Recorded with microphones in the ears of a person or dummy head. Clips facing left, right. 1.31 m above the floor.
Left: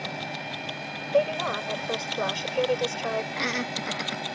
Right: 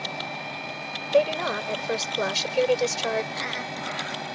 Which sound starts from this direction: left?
Laughter, at 3.3 s.